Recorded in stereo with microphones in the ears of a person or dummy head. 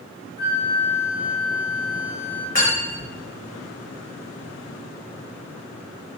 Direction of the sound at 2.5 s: 35° left (ahead or behind).